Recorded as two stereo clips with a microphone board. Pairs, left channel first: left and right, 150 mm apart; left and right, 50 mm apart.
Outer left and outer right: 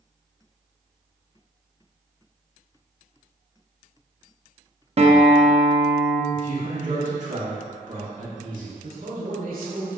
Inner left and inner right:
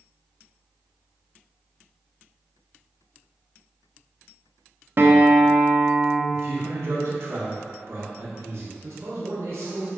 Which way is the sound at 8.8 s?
75° right (ahead or behind).